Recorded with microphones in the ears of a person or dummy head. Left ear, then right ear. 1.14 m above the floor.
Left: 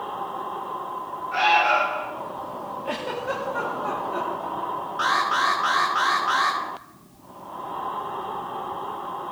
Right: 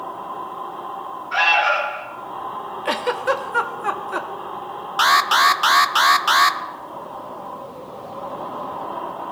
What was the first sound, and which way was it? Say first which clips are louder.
An alarm: right 2 dB; 80° right.